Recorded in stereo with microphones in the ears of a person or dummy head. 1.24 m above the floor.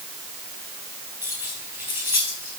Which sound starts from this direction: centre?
Keys jangling, at 1.2 s.